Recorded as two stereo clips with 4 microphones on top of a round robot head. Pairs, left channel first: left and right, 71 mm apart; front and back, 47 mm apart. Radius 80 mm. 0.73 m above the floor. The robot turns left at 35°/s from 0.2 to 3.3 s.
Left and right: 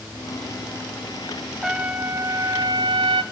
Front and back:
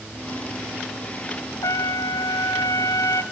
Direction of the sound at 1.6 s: 5° right.